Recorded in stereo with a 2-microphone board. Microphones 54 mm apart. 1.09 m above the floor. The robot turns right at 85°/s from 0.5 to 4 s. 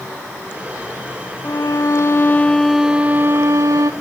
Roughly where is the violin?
Left.